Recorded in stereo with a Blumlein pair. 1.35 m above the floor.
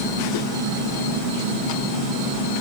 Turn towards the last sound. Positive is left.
No sound to turn to.